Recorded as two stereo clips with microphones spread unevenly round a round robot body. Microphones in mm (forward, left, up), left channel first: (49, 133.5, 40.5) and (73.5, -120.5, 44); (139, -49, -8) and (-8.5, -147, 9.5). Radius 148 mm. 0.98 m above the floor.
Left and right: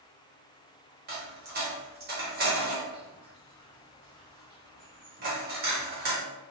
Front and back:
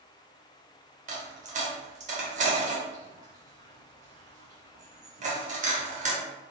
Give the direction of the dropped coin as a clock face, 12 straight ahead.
4 o'clock.